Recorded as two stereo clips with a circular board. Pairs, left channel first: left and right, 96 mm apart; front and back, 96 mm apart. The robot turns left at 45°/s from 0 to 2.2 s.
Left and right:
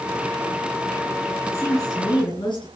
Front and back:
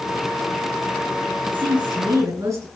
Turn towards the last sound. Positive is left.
turn(degrees=125)